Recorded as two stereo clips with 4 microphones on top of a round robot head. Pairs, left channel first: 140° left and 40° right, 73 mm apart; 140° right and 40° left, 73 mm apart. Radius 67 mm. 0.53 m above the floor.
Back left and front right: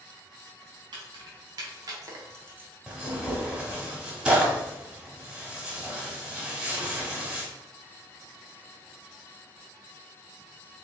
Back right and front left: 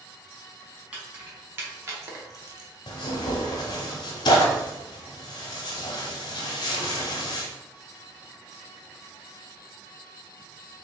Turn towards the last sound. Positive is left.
turn(degrees=-120)